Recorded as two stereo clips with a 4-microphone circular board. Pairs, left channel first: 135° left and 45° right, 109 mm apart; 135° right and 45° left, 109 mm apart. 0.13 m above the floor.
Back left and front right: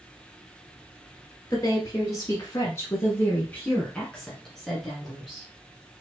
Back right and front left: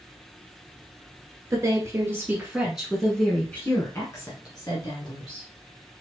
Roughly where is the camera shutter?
I don't hear a camera shutter.